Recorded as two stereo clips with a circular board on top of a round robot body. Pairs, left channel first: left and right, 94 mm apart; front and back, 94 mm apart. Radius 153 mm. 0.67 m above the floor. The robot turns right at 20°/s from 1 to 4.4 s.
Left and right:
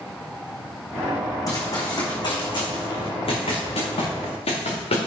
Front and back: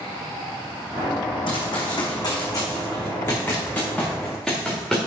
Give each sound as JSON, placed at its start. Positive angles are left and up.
{"t": 1.5, "sound": "running footsteps", "azimuth_deg": 35, "distance_m": 3.5}